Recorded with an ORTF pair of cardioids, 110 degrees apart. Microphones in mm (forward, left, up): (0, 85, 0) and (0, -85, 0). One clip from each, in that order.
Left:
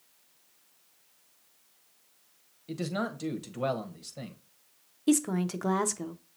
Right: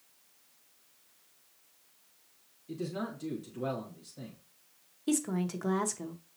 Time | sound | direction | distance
2.7 | a man speaking | 65° left | 1.1 m
5.1 | a woman speaking | 20° left | 0.6 m